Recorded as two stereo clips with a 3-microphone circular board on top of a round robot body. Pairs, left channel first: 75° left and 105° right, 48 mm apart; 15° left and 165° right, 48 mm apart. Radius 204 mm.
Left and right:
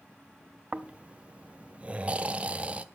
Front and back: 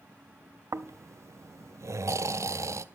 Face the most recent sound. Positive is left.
turn(degrees=-170)